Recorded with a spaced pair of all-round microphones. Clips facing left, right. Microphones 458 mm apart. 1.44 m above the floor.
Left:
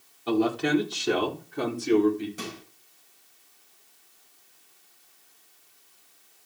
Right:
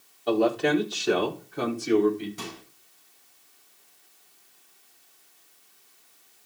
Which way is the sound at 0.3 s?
20° left (ahead or behind).